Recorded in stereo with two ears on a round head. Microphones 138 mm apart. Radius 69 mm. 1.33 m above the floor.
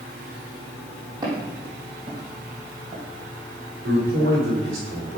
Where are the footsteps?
25° right (ahead or behind), 3.5 m; by 3.0 s 50° right (ahead or behind), 3 m.